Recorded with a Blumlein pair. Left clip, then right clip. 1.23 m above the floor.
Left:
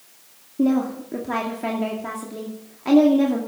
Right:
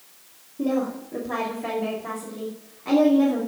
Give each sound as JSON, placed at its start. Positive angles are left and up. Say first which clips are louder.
{"t": 0.6, "sound": "a woman speaking", "louder": "left 3 dB", "azimuth_deg": 65, "distance_m": 2.5}